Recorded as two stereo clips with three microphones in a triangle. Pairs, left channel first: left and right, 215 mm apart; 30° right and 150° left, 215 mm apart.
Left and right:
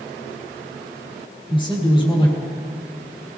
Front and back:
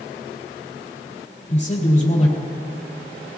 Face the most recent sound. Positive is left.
turn(degrees=25)